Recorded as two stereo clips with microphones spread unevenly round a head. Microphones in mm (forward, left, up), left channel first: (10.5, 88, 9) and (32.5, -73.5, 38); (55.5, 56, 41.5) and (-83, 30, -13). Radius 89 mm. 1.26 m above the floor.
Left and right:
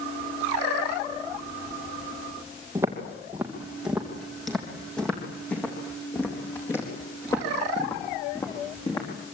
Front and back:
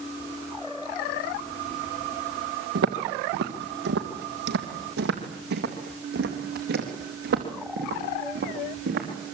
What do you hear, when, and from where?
2.8 s footsteps: 155° right, 2.5 m; by 9.1 s 170° left, 6 m